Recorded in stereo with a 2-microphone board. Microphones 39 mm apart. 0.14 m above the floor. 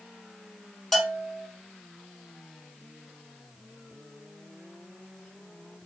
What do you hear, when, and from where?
0.9 s a bell: 10° left (ahead or behind), 1.3 m